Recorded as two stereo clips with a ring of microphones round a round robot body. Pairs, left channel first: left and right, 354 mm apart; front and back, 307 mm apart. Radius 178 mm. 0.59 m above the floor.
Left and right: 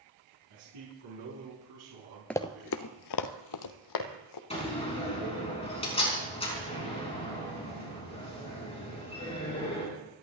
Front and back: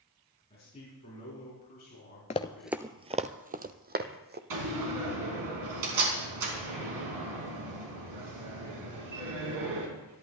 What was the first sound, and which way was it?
A man speaking, 75° right.